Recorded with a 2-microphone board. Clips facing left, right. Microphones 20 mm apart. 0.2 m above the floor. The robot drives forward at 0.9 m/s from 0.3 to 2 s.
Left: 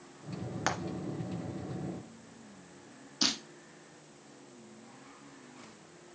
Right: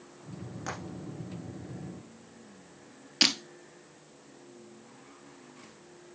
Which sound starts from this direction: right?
Breaking glass, at 3.2 s.